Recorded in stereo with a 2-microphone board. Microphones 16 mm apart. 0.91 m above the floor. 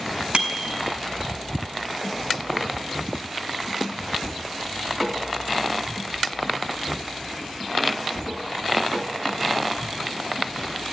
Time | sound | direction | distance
0.3 | a bicycle bell | 80° right | 4.5 m